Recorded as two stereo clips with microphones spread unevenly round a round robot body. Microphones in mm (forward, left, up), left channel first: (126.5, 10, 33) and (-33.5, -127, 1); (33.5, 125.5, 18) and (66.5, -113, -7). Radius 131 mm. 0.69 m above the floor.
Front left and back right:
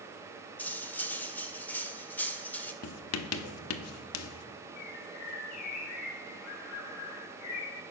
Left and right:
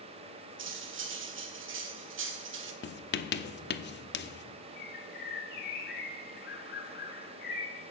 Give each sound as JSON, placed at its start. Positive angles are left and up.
{"t": 0.6, "sound": "cutlery clinking", "azimuth_deg": -45, "distance_m": 1.3}
{"t": 2.8, "sound": "writing", "azimuth_deg": 50, "distance_m": 0.8}
{"t": 4.8, "sound": "a bird", "azimuth_deg": 55, "distance_m": 2.5}